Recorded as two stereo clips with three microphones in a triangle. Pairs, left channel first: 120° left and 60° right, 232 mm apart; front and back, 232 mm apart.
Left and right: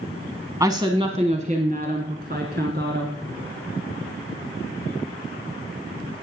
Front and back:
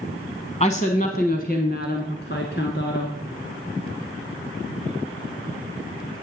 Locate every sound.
0.6 s a woman speaking: straight ahead, 1.1 m; by 3.2 s 30° right, 2 m